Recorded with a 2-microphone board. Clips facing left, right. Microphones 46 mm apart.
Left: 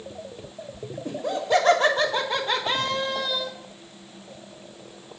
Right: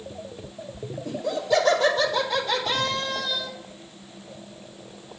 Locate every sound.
1.1 s laughter: 40° left (ahead or behind), 1.3 m; by 3.5 s 10° left (ahead or behind), 0.9 m